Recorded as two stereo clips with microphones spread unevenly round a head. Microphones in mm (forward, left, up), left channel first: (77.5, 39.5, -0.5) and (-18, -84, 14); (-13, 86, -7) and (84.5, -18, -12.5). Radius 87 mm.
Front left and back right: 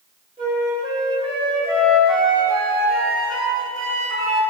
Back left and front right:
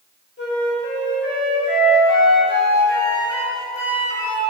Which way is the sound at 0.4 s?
165° left.